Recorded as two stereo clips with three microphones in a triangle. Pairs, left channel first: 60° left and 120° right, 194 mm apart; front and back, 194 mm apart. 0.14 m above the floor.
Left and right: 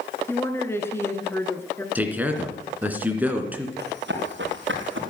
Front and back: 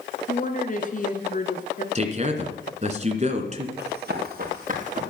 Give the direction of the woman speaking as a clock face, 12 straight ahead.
12 o'clock.